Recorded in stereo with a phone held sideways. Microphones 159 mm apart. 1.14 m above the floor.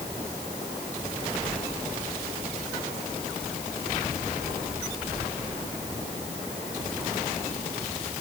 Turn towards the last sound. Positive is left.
No sound to turn to.